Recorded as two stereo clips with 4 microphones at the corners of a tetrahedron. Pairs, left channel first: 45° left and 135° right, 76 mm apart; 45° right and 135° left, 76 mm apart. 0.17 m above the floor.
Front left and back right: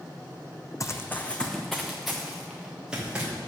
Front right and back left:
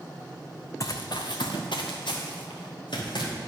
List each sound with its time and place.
0.8 s running footsteps: straight ahead, 0.7 m; by 3.3 s 60° right, 2.5 m